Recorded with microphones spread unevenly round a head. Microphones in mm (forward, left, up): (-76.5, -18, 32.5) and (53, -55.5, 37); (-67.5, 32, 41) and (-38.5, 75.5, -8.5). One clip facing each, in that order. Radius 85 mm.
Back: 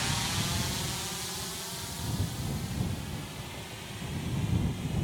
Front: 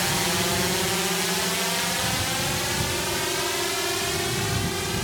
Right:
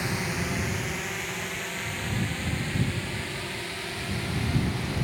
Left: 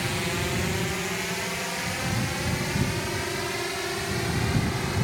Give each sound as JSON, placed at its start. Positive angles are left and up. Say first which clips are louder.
{"t": 0.0, "sound": "a drone", "louder": "front 9 dB, left 1 dB", "azimuth_deg": -25}